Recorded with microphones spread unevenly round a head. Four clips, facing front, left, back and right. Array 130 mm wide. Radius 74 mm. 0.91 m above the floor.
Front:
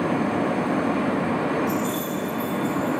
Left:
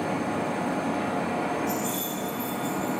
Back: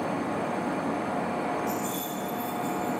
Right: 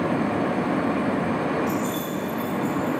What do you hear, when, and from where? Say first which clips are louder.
1.7 s keys jangling: right 4 dB, front 6 dB; 175° right, 4.5 m; by 3.0 s 165° right, 3.5 m